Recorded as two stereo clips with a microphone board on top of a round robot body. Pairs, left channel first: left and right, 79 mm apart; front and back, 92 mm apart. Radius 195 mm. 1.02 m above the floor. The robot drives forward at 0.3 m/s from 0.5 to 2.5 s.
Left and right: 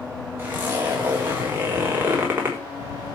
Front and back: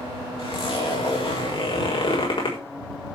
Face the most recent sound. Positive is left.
turn(degrees=-25)